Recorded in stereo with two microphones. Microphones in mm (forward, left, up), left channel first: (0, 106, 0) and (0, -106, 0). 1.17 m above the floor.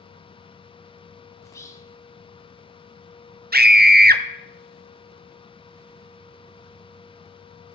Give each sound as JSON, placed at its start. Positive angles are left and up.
{"t": 1.4, "sound": "whispering", "side_deg": 15, "distance_m": 0.6}
{"t": 3.5, "sound": "a scream", "side_deg": -50, "distance_m": 0.5}